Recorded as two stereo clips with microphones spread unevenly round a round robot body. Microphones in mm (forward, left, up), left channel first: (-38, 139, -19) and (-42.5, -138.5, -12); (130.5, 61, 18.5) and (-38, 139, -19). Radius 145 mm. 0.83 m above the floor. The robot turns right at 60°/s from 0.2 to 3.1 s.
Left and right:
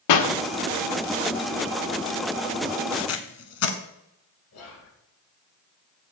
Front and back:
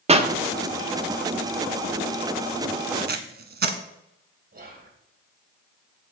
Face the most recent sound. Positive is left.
turn(degrees=125)